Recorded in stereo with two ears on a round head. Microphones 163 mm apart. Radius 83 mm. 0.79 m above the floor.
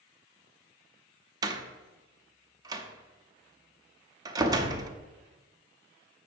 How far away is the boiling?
I don't hear boiling.